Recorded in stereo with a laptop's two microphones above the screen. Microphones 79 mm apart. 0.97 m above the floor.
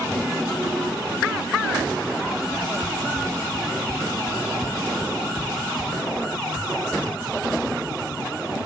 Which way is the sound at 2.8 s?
20° right (ahead or behind).